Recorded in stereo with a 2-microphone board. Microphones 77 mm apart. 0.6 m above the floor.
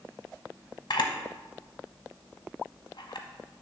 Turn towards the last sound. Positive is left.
turn(degrees=75)  # may be behind; listen again after turning